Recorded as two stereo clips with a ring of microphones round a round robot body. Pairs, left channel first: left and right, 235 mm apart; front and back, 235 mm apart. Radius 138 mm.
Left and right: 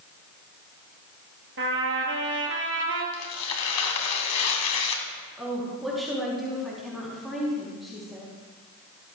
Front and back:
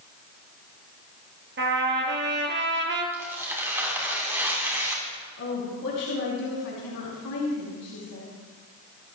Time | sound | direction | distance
1.6 | a trumpet | 140° right | 3 m
3.1 | tearing paper | 100° left | 2.5 m
5.4 | a woman speaking | straight ahead | 5 m